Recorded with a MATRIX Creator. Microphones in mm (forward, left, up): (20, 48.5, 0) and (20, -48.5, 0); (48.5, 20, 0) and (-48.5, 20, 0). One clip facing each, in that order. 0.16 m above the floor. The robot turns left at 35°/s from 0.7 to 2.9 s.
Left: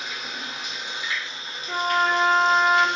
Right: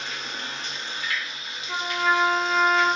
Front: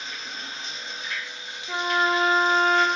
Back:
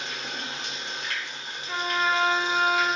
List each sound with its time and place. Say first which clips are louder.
0.0 s running water: even, back 2 dB; 175° left, 0.8 m; by 3.0 s 95° left, 0.8 m
1.7 s a trumpet: left 2 dB, front 3 dB; 65° left, 0.8 m; by 2.9 s 25° left, 0.8 m